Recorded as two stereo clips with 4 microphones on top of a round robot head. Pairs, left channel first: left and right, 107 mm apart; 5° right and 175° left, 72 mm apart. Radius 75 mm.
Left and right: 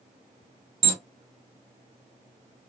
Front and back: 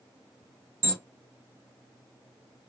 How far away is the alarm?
About 0.7 m.